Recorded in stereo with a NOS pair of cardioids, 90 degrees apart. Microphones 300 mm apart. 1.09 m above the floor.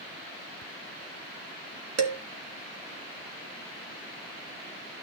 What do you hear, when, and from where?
2.0 s dishes clattering: 60° right, 1.6 m